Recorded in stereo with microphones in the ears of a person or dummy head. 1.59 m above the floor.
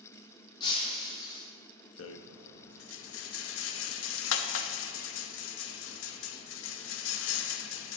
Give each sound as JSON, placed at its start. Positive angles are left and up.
{"t": 0.6, "sound": "breaking glass", "side_deg": 25, "distance_m": 1.5}
{"t": 2.0, "sound": "a rattle", "side_deg": 75, "distance_m": 0.5}